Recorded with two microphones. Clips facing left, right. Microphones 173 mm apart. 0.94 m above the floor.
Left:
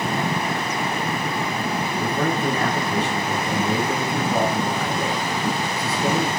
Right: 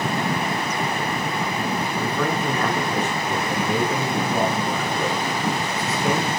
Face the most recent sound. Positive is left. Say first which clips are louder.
# left 3 dB
turn(degrees=35)  # may be behind; listen again after turning